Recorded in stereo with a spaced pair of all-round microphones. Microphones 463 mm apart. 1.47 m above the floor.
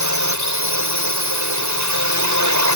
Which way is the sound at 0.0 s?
40° right (ahead or behind).